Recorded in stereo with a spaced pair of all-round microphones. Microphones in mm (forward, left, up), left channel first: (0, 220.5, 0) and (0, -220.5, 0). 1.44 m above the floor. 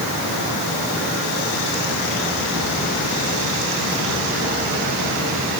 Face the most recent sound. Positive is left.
No sound to turn to.